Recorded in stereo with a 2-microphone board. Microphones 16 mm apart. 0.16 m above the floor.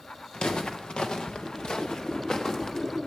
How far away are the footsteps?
About 1.7 m.